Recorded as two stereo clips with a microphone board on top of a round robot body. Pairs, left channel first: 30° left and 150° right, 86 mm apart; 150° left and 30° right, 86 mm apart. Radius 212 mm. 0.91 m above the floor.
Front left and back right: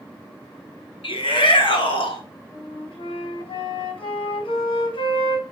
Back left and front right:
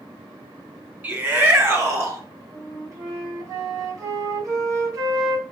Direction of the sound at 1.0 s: 40° left.